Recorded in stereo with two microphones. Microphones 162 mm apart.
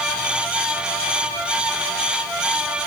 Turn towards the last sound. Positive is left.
No sound to turn to.